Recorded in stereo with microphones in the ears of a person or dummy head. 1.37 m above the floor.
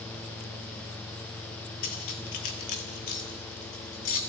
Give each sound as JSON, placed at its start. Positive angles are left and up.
{"t": 1.8, "sound": "cutlery clinking", "side_deg": 45, "distance_m": 1.4}